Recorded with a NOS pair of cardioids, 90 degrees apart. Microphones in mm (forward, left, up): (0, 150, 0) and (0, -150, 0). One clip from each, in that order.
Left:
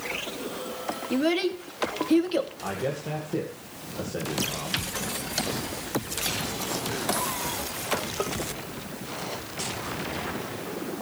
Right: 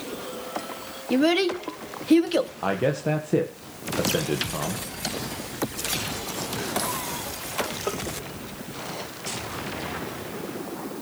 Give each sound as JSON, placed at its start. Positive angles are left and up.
{"t": 1.1, "sound": "a child speaking", "azimuth_deg": -30, "distance_m": 2.5}
{"t": 2.6, "sound": "a man speaking", "azimuth_deg": -55, "distance_m": 1.9}